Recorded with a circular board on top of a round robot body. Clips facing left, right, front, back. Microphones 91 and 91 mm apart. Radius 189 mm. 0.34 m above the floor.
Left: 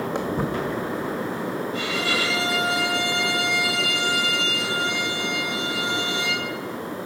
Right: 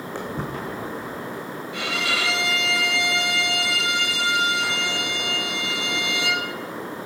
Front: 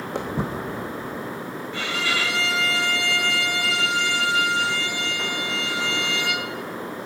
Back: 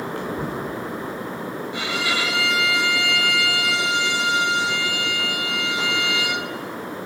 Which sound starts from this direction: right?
A violin, at 1.7 s.